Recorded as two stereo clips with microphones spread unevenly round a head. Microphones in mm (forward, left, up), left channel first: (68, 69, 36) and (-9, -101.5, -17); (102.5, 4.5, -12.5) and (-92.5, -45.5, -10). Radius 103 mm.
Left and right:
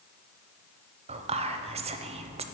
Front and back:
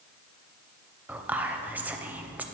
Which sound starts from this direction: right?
Whispering, at 1.1 s.